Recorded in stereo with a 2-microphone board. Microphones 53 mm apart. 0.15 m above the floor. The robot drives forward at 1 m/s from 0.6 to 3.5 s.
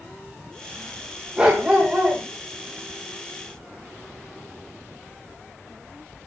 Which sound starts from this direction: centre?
A dog barking, at 1.4 s.